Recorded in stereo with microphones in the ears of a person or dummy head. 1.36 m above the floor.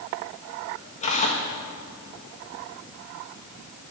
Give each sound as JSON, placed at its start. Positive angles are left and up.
{"t": 1.0, "sound": "tearing paper", "side_deg": 35, "distance_m": 1.6}